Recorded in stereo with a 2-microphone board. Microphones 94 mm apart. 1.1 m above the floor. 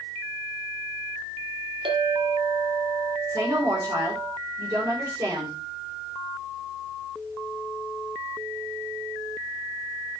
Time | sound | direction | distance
1.9 | a clink | 70° right (ahead or behind) | 1.9 m
3.3 | a woman speaking | 35° right (ahead or behind) | 4 m